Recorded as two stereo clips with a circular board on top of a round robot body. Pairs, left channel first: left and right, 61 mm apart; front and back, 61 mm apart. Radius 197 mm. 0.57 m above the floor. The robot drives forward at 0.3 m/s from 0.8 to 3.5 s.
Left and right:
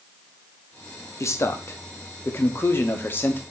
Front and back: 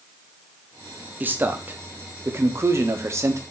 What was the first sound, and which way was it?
A man speaking, 125° left.